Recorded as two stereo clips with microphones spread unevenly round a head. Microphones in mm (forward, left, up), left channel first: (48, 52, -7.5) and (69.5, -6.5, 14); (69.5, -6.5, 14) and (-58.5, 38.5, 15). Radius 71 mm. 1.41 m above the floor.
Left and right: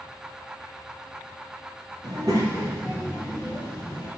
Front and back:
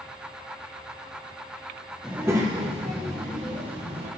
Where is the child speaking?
110° right, 1.1 m; by 4.1 s 165° right, 3 m.